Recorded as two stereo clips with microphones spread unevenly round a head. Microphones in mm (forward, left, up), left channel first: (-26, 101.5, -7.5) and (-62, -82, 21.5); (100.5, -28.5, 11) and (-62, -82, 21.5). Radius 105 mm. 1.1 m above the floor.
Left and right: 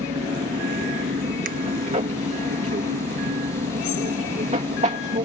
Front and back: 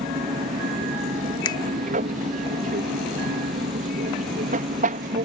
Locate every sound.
0.0 s an aircraft: 145° right
1.4 s a finger snap: 45° right